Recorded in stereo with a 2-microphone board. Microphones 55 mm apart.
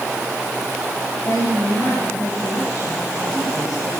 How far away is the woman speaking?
About 7 m.